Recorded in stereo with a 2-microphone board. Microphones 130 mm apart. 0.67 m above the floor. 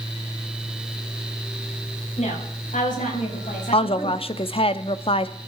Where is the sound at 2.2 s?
70° left (ahead or behind), 5 m.